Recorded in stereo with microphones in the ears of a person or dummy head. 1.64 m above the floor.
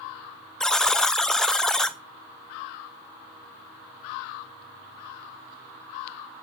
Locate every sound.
0.6 s a buzzer: 5° left (ahead or behind), 0.6 m